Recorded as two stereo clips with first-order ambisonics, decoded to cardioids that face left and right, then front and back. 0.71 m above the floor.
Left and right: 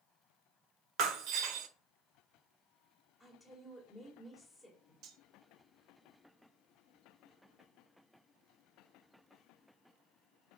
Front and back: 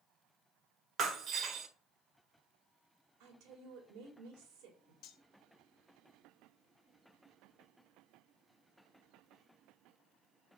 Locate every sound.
1.0 s breaking glass: 125° right, 0.9 m
3.2 s a woman speaking: 170° right, 3 m
5.0 s cutlery clinking: 45° right, 1.0 m